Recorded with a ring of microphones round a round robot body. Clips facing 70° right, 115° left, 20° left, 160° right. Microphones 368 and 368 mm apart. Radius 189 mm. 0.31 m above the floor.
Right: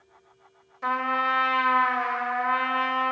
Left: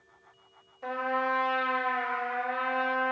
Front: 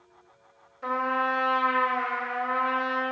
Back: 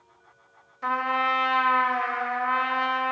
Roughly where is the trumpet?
Right.